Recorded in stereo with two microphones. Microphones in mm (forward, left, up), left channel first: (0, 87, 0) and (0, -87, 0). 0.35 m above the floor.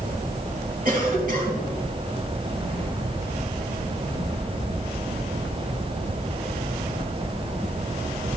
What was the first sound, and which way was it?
A cough, 55° right (ahead or behind).